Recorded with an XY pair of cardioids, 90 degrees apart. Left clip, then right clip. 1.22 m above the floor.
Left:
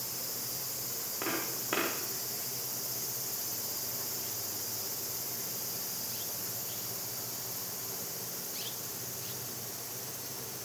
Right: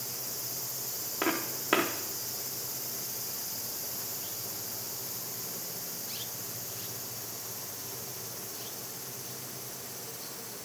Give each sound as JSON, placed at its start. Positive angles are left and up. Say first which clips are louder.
{"t": 1.2, "sound": "footsteps", "louder": "right 4 dB", "azimuth_deg": -55, "distance_m": 4.0}